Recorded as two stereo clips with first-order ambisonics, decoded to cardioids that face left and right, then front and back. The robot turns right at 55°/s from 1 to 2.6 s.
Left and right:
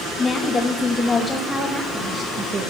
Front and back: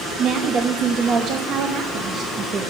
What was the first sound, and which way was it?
A woman speaking, 150° left.